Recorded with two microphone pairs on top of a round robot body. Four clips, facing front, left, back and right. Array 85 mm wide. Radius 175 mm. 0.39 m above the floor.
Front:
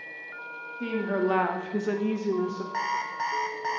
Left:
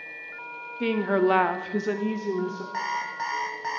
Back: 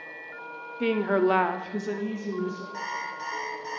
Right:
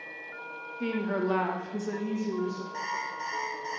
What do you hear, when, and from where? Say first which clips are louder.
0.8 s a woman speaking: left 7 dB, back 4 dB; 155° left, 1.4 m; by 2.6 s 25° left, 1.6 m
2.7 s an alarm clock: left 4 dB, front 4 dB; 40° left, 1.5 m